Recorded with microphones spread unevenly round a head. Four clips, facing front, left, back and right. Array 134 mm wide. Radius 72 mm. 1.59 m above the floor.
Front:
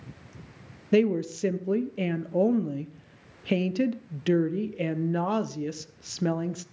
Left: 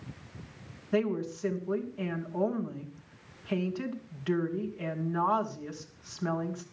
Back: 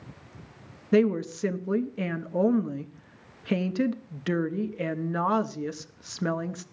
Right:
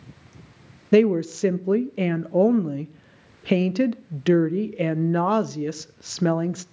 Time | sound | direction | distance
0.9 | a woman speaking | 90° right | 0.8 m